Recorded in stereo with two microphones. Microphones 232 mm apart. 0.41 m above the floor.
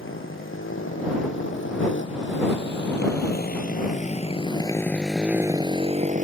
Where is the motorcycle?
70° left (ahead or behind); by 6.2 s 35° right (ahead or behind).